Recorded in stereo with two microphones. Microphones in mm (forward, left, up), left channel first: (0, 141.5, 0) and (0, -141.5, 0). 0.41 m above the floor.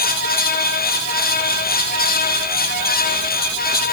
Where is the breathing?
No breathing in this recording.